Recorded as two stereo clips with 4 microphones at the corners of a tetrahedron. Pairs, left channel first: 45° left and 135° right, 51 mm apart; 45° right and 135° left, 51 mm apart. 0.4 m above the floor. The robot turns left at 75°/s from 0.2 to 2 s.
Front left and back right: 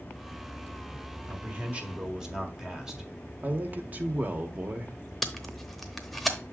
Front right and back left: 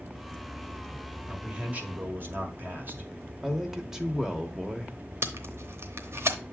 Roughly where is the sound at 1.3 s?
Behind right.